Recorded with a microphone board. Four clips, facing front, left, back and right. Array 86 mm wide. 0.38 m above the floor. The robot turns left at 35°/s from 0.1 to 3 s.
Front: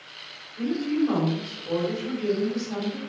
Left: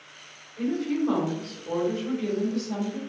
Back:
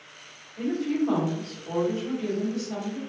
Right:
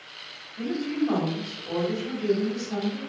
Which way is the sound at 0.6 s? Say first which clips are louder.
Left 1 dB, front 2 dB; 115° left.